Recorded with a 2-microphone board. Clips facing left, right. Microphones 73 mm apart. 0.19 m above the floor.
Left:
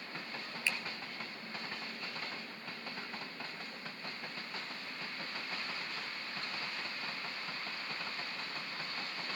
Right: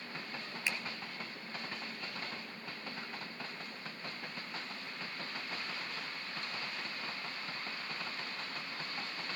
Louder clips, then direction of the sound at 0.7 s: Left 1 dB; 20° right (ahead or behind).